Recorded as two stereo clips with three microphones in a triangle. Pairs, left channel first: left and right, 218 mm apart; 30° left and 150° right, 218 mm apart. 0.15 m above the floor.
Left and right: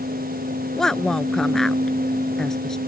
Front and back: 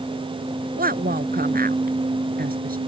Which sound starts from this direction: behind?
A woman speaking, at 0.8 s.